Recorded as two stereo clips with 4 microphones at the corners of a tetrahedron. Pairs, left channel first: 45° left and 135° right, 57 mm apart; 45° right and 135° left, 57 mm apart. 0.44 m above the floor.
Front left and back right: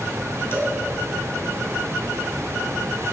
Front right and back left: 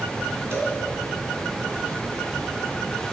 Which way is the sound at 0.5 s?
90° left.